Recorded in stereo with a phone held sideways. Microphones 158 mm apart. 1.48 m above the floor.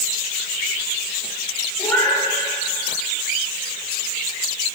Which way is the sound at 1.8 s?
15° left (ahead or behind).